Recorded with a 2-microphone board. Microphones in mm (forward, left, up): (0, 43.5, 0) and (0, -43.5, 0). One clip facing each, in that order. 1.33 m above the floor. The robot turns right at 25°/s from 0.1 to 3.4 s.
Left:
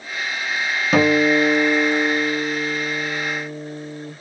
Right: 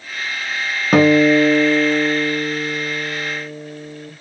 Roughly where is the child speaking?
No child speaking in this recording.